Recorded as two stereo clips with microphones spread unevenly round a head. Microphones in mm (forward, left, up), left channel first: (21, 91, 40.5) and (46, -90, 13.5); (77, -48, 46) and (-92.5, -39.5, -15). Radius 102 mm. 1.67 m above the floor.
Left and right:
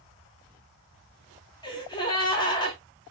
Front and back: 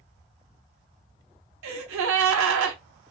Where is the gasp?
165° left, 0.6 m.